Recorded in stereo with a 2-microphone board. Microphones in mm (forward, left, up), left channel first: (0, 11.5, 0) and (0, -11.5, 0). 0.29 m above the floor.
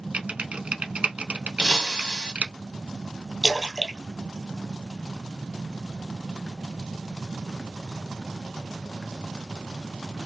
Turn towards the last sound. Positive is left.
turn(degrees=-10)  # may be behind; listen again after turning